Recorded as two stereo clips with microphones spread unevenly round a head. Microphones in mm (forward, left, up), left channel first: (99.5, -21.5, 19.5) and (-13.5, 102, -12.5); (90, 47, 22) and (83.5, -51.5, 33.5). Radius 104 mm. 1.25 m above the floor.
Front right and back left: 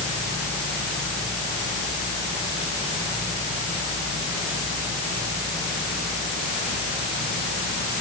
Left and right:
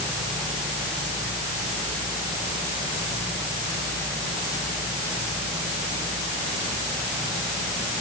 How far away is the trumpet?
No trumpet in this recording.